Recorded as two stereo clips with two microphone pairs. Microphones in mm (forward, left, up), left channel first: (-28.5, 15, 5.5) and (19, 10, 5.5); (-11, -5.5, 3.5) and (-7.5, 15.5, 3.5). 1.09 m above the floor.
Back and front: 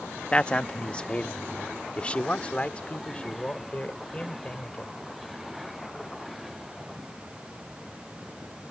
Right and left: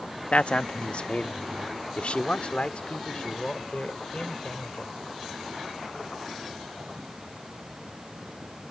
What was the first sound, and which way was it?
A man speaking, 120° right.